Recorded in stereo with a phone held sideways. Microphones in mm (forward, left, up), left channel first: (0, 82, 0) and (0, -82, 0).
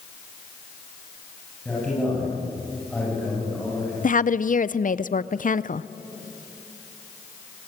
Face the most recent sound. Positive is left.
turn(degrees=55)  # may be behind; listen again after turning